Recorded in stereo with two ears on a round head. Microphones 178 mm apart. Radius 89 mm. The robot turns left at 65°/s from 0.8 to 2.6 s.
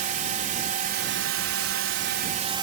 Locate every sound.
0.0 s a drone: 40° right; by 2.6 s 155° right